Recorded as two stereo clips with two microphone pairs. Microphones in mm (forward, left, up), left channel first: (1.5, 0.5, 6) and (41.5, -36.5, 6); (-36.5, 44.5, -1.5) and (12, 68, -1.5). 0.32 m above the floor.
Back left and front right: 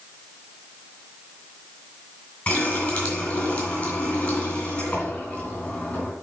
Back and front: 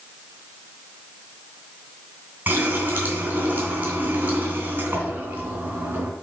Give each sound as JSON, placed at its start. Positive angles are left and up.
{"t": 2.5, "sound": "a running tap", "azimuth_deg": 70, "distance_m": 2.5}